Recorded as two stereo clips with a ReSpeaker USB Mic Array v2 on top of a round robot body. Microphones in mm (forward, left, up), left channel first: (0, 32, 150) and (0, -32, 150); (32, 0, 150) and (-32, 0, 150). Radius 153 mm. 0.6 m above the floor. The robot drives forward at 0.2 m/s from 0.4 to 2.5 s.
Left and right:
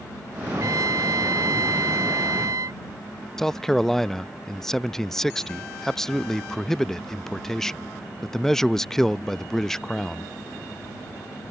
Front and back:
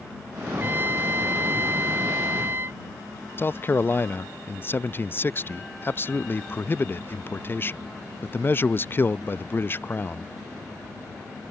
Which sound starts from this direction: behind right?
A trumpet, at 0.5 s.